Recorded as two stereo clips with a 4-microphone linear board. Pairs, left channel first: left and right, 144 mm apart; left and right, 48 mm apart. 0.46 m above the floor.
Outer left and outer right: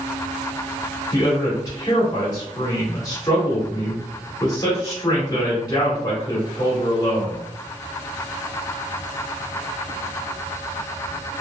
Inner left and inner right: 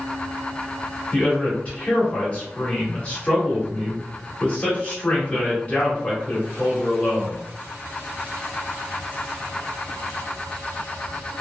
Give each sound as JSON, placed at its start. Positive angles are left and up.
{"t": 1.1, "sound": "a man speaking", "side_deg": 25, "distance_m": 1.3}